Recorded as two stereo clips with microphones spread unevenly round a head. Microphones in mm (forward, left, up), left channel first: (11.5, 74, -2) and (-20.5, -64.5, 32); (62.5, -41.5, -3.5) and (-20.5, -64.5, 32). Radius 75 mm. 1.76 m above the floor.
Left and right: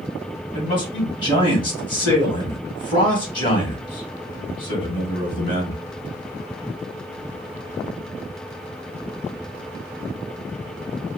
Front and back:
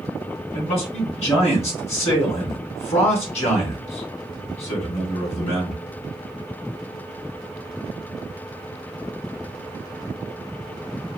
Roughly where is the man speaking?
Ahead.